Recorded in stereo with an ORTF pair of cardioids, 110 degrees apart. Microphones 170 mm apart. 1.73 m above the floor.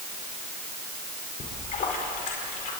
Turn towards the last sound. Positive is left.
turn(degrees=55)